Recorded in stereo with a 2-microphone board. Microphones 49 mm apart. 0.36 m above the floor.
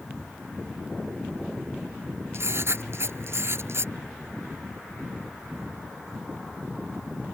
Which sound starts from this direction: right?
Writing, at 2.3 s.